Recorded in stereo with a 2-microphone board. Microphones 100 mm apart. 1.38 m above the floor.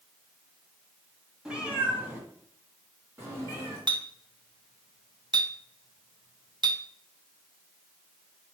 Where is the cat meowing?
5° right (ahead or behind), 1.5 m; by 3.8 s 25° right (ahead or behind), 3 m.